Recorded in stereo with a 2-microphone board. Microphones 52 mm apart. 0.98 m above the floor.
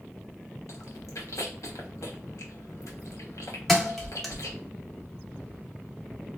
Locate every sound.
0.7 s chewing: 80° left, 0.9 m
3.7 s a thud: centre (ahead or behind), 0.6 m